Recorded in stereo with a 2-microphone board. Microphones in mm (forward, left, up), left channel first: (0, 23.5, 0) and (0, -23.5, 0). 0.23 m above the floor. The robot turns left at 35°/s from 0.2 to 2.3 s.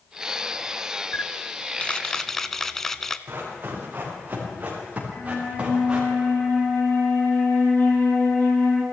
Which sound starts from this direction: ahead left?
A camera shutter, at 1.1 s.